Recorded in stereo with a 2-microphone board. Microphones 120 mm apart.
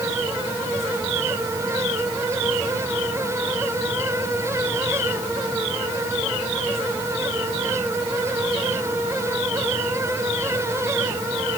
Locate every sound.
Only background noise.